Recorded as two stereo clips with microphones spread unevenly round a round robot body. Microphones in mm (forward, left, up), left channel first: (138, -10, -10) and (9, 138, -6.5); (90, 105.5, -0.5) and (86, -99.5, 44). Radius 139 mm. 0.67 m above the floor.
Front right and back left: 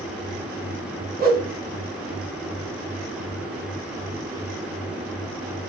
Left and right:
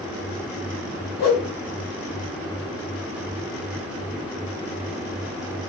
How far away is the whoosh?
About 1.3 m.